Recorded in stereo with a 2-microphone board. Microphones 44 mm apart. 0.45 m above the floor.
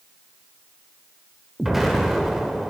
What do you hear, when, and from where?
1.6 s an explosion: 5° right (ahead or behind), 1.5 m